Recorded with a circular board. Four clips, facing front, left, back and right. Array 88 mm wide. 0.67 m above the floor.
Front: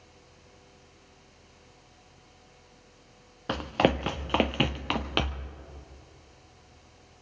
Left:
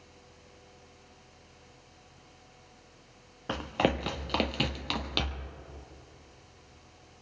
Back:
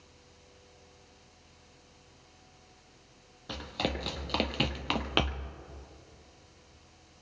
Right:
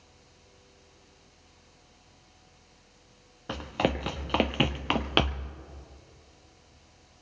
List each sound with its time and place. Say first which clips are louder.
3.5 s running footsteps: even, front 10 dB; 10° left, 0.9 m; by 5.5 s 100° right, 0.9 m